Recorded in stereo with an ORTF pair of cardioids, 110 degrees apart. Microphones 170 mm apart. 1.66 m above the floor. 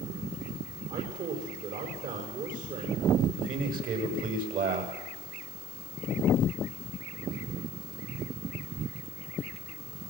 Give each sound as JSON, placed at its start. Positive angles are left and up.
{"t": 0.9, "sound": "a man speaking", "azimuth_deg": -55, "distance_m": 7.5}
{"t": 3.4, "sound": "a man speaking", "azimuth_deg": -55, "distance_m": 8.5}